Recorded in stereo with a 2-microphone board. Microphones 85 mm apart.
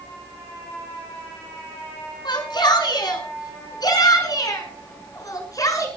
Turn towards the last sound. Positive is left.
turn(degrees=40)  # may be behind; listen again after turning